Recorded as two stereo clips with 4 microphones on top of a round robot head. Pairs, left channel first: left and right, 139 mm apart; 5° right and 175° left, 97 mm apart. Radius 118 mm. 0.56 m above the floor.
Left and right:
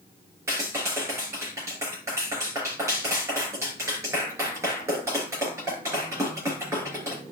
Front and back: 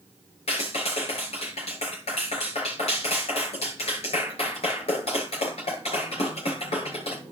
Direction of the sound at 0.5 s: 20° right.